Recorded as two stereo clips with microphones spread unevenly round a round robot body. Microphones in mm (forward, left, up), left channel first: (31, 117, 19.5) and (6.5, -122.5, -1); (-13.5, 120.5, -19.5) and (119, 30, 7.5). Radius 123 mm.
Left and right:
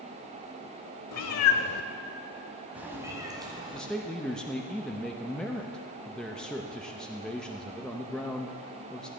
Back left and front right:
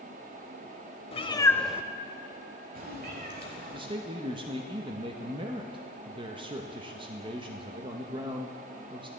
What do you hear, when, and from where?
1.1 s a cat meowing: 90° left, 1.1 m; by 3.8 s 25° right, 2.5 m
3.7 s a man speaking: 10° right, 0.8 m